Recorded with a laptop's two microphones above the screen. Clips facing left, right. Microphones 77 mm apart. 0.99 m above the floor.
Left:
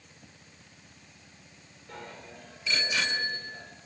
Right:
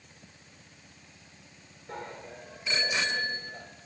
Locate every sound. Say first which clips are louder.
1.9 s a bicycle bell: right 4 dB; 30° right (ahead or behind), 2.5 m; by 3.7 s 25° right (ahead or behind), 4 m